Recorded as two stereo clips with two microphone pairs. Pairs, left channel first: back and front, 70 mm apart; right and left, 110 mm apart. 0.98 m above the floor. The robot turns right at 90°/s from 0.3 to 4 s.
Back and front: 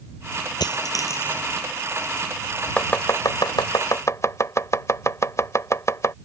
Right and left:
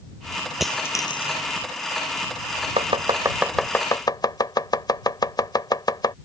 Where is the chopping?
110° left; by 6.2 s 140° right.